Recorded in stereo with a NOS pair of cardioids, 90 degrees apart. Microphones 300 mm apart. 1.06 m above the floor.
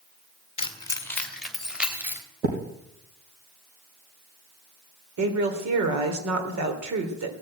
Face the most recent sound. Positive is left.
turn(degrees=-70)